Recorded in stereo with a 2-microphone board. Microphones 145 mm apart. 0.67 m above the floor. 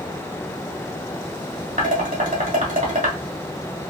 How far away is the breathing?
I don't hear breathing.